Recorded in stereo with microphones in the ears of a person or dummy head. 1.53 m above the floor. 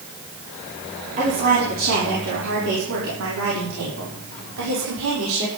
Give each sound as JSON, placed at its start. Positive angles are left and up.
{"t": 1.2, "sound": "a woman speaking", "side_deg": -40, "distance_m": 4.5}